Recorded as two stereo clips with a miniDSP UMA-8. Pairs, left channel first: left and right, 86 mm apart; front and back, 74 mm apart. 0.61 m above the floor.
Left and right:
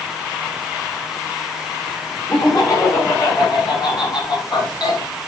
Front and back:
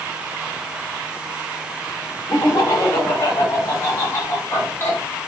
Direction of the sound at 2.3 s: 40° left.